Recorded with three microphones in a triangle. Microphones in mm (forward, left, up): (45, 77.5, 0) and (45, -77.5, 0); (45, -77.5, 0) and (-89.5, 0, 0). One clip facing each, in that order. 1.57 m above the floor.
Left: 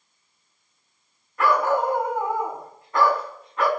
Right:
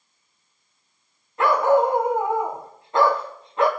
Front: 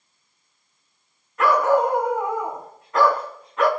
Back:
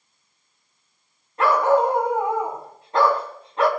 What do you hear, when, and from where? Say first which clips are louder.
1.4 s a dog barking: right 4 dB, even; 155° right, 3.5 m